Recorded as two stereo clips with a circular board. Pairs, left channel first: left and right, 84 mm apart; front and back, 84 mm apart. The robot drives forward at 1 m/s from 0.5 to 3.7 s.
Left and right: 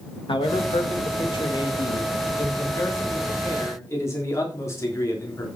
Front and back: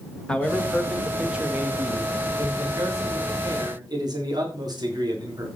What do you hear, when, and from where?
0.3 s a man speaking: 80° left, 2 m; by 5.5 s 145° left, 3.5 m